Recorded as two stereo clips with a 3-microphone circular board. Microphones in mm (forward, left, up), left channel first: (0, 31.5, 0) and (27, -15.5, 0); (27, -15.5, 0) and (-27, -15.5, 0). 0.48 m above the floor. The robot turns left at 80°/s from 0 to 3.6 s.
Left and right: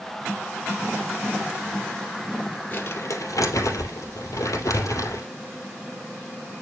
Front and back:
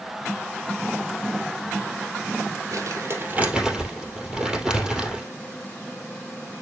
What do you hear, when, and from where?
2.7 s crumpling: 170° left, 2.5 m; by 5.3 s 100° left, 2.5 m